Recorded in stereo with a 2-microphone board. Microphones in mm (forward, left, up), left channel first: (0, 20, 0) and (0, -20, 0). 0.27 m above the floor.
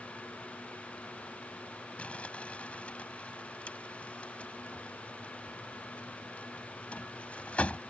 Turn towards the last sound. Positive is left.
turn(degrees=35)  # may be behind; listen again after turning